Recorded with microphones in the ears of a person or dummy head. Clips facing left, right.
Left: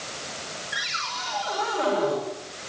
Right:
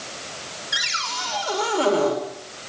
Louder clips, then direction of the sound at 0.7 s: Right 3 dB; 50° right (ahead or behind).